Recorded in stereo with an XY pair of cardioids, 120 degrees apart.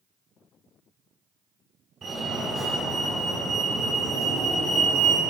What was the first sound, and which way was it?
A fire alarm, 35° right.